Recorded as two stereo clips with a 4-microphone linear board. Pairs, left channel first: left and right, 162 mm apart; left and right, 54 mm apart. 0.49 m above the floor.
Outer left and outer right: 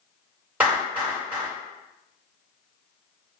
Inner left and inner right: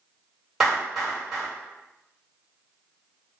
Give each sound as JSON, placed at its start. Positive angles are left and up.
{"t": 0.6, "sound": "a clap", "side_deg": -10, "distance_m": 1.6}